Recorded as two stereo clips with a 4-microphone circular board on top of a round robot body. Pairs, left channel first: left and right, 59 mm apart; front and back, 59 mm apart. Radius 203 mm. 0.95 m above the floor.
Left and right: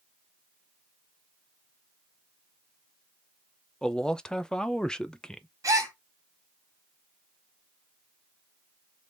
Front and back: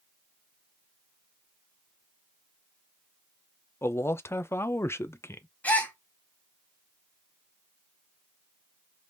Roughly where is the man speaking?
Ahead.